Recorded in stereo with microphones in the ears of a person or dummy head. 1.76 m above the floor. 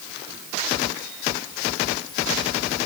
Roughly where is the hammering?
I don't hear hammering.